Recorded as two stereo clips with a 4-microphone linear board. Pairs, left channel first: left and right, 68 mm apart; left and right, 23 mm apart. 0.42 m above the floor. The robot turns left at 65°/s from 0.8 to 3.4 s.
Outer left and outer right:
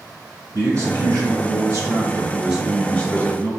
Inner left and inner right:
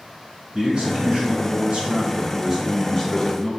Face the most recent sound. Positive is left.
turn(degrees=135)